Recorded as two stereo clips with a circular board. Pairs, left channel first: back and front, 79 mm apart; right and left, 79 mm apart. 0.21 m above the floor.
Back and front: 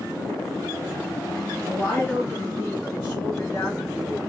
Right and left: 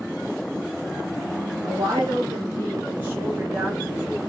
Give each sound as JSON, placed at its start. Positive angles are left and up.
{"t": 1.6, "sound": "a woman speaking", "azimuth_deg": 105, "distance_m": 2.5}